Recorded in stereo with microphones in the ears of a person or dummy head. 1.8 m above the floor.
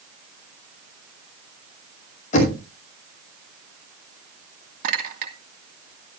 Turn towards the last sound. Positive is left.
turn(degrees=-55)  # may be behind; listen again after turning